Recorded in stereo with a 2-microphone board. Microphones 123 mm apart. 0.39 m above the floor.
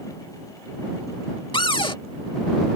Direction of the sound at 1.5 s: 45° left (ahead or behind).